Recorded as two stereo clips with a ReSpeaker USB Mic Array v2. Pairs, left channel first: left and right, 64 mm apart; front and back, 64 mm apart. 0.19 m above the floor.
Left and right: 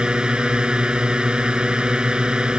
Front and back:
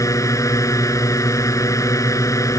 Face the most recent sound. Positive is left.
turn(degrees=-15)